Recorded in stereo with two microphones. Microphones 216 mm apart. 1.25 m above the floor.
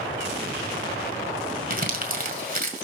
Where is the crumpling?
45° right (ahead or behind), 2.0 m.